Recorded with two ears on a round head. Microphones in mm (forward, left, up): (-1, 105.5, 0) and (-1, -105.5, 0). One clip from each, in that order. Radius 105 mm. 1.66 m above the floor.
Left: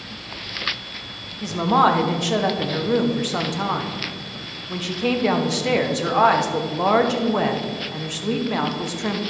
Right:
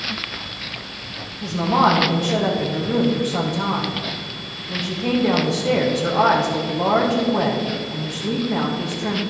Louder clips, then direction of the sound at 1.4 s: Even; 85° left.